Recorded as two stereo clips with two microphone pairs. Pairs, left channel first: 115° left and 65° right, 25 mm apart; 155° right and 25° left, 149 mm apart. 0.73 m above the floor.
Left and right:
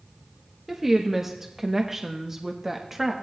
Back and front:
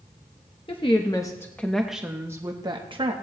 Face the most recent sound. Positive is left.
turn(degrees=5)